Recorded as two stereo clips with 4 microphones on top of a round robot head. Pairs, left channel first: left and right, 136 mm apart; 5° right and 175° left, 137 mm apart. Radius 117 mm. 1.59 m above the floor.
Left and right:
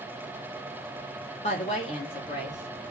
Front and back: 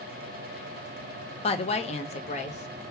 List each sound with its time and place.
1.4 s a woman speaking: 35° left, 0.9 m; by 2.8 s 30° left, 1.7 m